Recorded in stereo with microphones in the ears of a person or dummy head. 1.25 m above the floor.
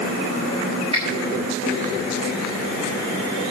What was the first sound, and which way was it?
A finger snap, 35° right (ahead or behind).